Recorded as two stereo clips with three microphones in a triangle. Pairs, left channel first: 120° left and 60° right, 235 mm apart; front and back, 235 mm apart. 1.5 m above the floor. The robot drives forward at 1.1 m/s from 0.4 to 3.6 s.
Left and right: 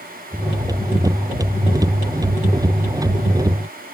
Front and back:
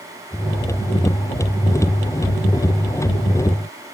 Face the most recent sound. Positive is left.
No sound to turn to.